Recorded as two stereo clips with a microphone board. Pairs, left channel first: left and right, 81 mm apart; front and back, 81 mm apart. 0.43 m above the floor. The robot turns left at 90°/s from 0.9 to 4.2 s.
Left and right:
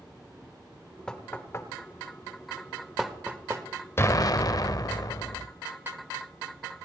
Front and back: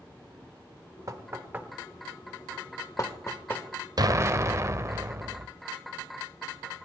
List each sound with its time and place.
1.1 s knocking: 165° left, 1.3 m; by 3.6 s 65° right, 1.3 m
4.0 s an explosion: 150° left, 0.5 m; by 5.5 s 130° left, 0.5 m